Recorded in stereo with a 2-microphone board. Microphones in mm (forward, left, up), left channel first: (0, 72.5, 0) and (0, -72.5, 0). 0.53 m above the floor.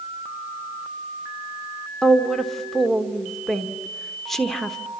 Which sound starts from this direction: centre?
A woman speaking, at 2.0 s.